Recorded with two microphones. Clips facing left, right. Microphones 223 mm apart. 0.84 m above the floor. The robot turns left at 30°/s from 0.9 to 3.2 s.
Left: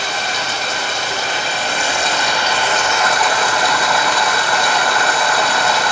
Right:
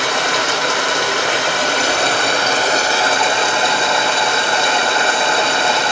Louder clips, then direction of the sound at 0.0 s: Right 5 dB; 85° right.